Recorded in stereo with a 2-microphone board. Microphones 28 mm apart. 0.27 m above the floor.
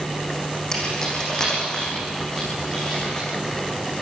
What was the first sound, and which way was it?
Keys jangling, 20° left (ahead or behind).